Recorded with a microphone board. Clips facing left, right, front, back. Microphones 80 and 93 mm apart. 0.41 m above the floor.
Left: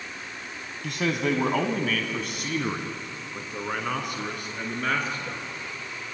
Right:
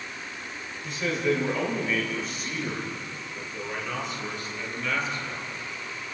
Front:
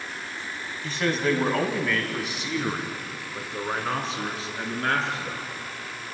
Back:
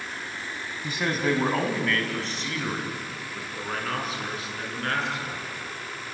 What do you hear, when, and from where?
0.8 s a man speaking: 105° left, 3 m; by 5.5 s 55° left, 5.5 m